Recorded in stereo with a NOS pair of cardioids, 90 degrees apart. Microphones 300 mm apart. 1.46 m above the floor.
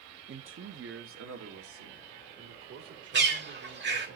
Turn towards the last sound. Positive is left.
turn(degrees=-35)